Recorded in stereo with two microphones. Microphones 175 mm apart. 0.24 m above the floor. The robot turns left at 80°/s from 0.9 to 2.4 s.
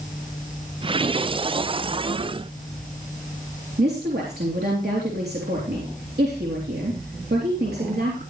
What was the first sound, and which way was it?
A woman speaking, 70° right (ahead or behind).